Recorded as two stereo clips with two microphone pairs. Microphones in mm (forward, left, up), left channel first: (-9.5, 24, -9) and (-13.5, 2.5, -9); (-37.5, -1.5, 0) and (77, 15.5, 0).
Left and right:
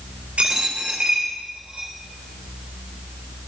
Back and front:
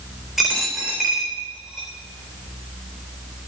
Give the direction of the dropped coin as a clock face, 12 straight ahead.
3 o'clock.